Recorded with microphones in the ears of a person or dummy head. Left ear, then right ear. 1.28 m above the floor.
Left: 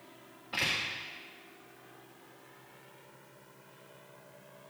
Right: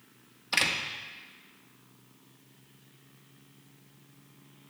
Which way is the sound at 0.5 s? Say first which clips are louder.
Right 4 dB; 65° right (ahead or behind).